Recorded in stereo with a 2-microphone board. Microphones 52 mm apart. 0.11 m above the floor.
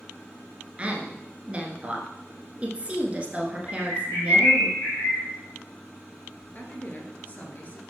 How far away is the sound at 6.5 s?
About 1.5 m.